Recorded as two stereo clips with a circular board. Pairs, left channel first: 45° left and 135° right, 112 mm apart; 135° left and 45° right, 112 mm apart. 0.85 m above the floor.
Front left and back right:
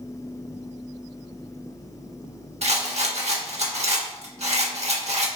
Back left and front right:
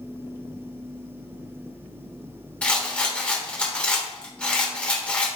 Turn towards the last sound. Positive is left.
turn(degrees=-145)